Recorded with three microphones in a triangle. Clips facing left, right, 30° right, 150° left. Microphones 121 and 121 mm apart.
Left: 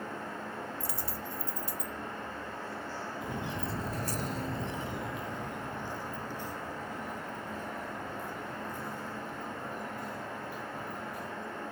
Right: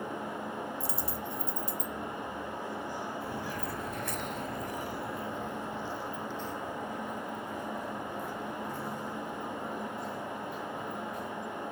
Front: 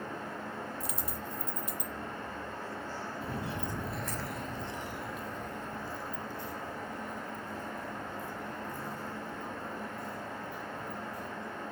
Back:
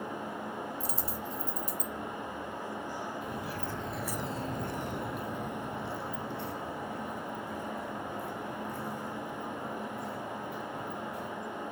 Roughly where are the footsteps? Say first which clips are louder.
Even, even; ahead.